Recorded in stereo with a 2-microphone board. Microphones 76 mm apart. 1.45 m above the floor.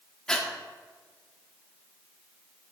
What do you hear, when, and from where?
0.3 s breathing: 10° left (ahead or behind), 1.4 m